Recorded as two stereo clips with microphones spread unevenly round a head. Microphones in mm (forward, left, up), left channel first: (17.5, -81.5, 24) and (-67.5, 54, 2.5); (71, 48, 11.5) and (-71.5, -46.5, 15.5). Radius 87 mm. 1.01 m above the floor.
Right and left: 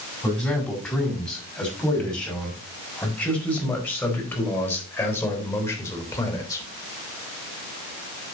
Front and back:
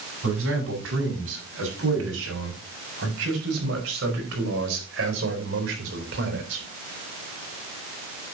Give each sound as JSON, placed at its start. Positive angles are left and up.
{"t": 0.2, "sound": "a man speaking", "azimuth_deg": -145, "distance_m": 7.0}